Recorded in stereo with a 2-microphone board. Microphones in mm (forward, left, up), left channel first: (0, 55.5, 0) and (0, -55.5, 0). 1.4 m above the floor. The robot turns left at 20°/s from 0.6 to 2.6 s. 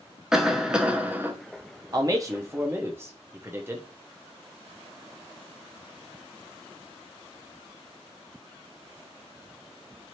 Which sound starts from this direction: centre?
A cough, at 0.3 s.